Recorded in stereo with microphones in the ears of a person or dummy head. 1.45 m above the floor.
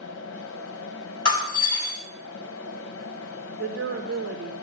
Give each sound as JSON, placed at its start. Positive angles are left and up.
{"t": 0.0, "sound": "a fan", "side_deg": 75, "distance_m": 1.0}
{"t": 1.2, "sound": "breaking glass", "side_deg": 25, "distance_m": 6.0}
{"t": 3.6, "sound": "a woman speaking", "side_deg": -55, "distance_m": 1.2}